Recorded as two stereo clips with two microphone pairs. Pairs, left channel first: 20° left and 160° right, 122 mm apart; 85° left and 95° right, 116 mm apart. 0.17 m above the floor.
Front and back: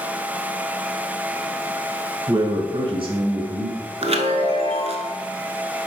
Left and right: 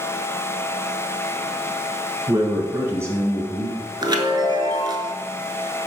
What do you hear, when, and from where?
2.3 s a man speaking: 125° right, 1.5 m; by 3.8 s 170° right, 2 m
4.0 s a chime: 140° right, 0.7 m